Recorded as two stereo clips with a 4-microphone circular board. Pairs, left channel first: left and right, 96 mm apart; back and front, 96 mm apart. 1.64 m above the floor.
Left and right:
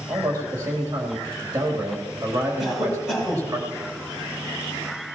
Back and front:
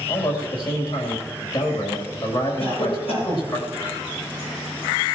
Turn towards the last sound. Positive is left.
turn(degrees=180)